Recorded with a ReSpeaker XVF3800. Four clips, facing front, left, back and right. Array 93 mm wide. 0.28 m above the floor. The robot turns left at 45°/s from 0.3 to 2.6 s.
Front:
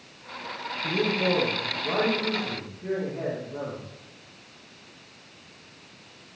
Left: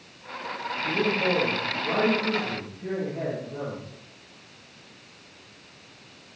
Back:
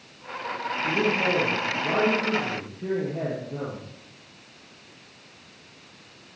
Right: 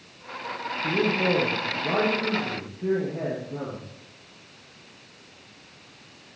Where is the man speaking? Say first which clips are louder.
Right 1 dB, back 1 dB; 70° right, 8.5 m; by 3.9 s 150° right, 8.5 m.